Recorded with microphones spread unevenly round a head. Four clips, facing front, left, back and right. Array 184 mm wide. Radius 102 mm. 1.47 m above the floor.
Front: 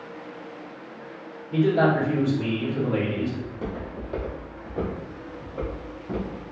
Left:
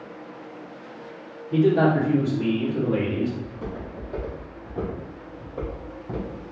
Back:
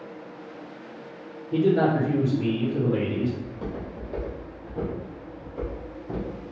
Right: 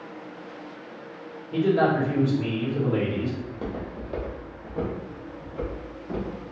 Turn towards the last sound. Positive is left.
turn(degrees=100)